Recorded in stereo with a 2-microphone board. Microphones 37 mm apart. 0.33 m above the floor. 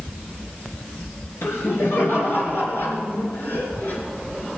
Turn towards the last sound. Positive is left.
turn(degrees=45)  # may be behind; listen again after turning